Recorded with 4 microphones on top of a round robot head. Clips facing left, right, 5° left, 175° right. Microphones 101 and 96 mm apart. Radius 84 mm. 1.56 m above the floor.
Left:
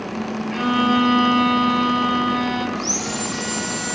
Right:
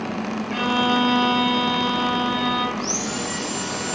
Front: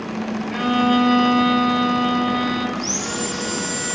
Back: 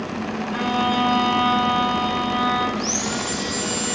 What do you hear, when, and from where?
0.5 s a violin: 5° right, 6 m
2.8 s sawing: 60° left, 4 m